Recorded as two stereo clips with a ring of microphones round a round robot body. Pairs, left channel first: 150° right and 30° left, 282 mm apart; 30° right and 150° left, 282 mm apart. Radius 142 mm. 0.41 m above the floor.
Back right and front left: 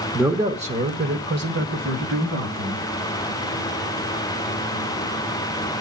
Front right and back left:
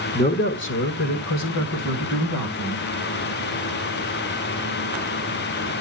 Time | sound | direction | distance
0.1 | a man speaking | 55° right | 1.0 m